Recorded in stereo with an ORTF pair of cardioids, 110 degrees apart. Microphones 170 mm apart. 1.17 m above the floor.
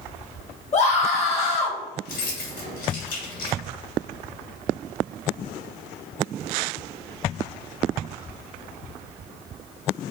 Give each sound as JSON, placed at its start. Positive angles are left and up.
{"t": 0.7, "sound": "a scream", "azimuth_deg": 40, "distance_m": 1.1}
{"t": 2.0, "sound": "keys jangling", "azimuth_deg": 55, "distance_m": 1.3}